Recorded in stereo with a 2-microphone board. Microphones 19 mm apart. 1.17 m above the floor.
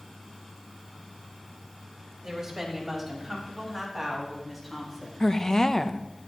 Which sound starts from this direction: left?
A woman speaking, at 5.2 s.